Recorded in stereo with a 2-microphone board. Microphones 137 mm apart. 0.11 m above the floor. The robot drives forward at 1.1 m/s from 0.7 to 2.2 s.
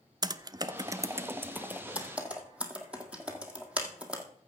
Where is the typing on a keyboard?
30° right (ahead or behind), 0.6 m; by 4.2 s 10° right (ahead or behind), 1.9 m.